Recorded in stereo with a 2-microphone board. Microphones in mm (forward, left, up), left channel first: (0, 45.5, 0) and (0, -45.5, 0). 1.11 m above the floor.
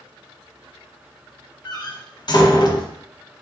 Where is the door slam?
45° left (ahead or behind), 0.8 m.